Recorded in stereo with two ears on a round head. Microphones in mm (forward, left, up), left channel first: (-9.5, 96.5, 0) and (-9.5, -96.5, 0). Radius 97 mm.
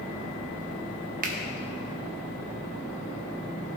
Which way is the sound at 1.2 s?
40° right (ahead or behind).